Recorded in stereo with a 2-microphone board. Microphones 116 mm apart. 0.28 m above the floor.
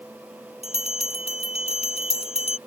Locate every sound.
0.6 s a bell: 60° left (ahead or behind)